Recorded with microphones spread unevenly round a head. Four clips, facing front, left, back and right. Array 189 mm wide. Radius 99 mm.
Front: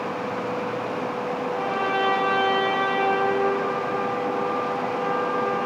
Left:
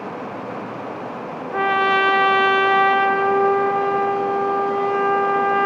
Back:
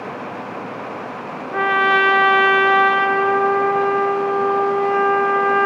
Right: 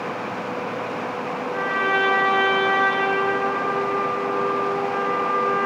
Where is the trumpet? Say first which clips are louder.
Left 6 dB, back 10 dB; 165° left, 0.6 m.